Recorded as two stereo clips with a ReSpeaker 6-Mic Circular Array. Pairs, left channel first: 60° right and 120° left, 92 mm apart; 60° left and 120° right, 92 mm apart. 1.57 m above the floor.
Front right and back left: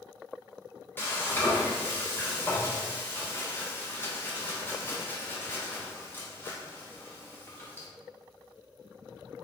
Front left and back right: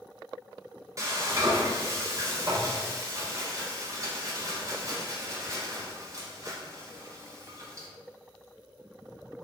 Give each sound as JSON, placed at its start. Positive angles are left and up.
{"t": 1.0, "sound": "frying", "azimuth_deg": -110, "distance_m": 0.8}